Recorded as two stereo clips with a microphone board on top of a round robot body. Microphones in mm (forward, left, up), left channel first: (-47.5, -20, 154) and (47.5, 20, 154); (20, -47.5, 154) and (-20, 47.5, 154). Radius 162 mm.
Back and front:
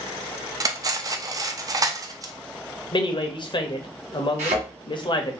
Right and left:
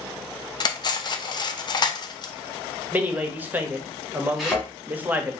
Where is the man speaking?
Straight behind, 0.9 m.